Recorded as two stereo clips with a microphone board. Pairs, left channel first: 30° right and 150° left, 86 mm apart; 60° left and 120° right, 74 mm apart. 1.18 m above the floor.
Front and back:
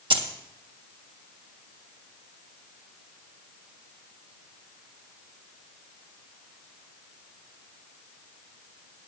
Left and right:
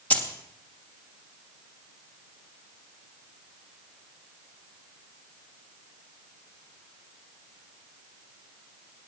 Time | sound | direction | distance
0.1 | keys jangling | 130° left | 1.4 m